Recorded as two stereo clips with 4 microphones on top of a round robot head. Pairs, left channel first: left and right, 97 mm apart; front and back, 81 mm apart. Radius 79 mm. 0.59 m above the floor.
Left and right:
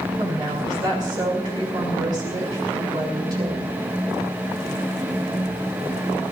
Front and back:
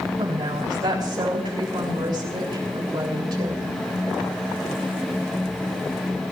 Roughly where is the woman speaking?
Behind right.